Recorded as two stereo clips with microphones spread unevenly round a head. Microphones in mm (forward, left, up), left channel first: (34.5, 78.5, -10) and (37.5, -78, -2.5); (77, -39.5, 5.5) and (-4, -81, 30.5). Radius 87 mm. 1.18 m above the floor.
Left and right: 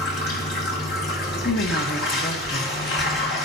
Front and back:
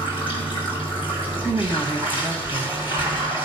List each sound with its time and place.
0.0 s running water: 125° left, 2 m
1.4 s a woman speaking: 120° left, 0.9 m